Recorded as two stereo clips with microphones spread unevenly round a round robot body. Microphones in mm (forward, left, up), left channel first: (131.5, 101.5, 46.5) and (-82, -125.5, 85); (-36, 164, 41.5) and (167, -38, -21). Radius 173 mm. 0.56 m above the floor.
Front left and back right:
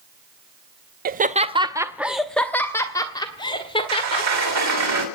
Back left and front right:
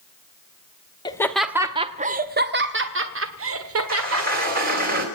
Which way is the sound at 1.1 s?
140° right.